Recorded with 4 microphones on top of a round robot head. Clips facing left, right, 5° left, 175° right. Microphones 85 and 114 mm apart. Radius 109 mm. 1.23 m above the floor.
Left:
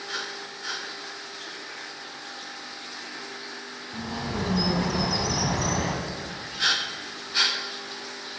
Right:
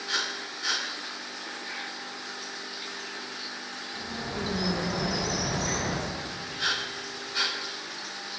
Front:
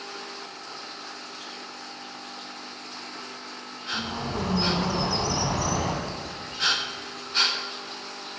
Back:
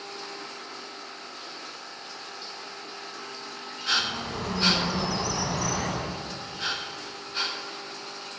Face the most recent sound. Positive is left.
turn(degrees=70)